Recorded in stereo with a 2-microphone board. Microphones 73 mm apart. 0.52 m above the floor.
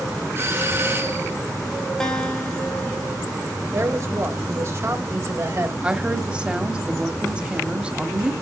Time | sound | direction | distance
0.3 | a doorbell | 35° right (ahead or behind) | 4 m
2.0 | a guitar | 10° left (ahead or behind) | 2 m
3.7 | a man speaking | 40° right (ahead or behind) | 2 m
5.8 | a woman speaking | 15° right (ahead or behind) | 1.3 m